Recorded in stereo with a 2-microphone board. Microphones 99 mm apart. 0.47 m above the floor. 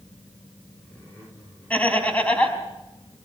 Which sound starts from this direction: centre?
Laughter, at 1.7 s.